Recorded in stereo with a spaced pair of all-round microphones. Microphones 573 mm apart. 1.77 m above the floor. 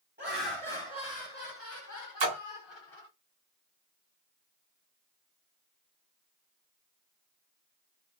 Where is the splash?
50° right (ahead or behind), 0.7 m.